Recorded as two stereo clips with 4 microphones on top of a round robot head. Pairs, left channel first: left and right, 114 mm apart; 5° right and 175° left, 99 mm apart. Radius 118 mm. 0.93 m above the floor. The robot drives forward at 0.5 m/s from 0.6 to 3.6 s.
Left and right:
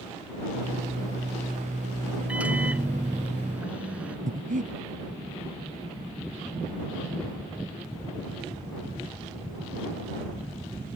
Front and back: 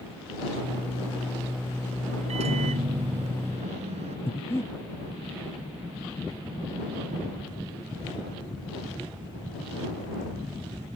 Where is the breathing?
80° right.